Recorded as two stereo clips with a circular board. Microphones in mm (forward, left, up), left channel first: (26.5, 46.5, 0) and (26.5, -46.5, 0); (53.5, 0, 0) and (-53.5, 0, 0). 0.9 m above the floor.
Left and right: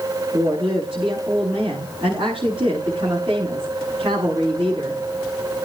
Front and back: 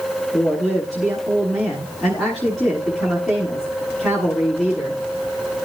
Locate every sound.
0.3 s a woman speaking: 85° right, 9 m